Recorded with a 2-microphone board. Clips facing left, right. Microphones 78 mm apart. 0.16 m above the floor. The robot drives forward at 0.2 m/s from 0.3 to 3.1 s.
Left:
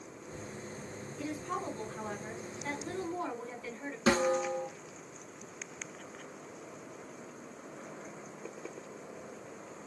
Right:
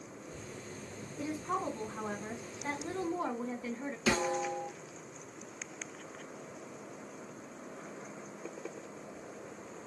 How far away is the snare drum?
About 2 m.